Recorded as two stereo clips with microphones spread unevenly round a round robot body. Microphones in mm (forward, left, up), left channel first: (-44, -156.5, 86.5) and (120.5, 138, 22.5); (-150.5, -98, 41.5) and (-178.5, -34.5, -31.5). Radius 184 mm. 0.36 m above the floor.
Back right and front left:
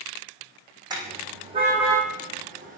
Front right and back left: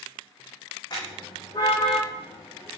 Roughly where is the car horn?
Ahead.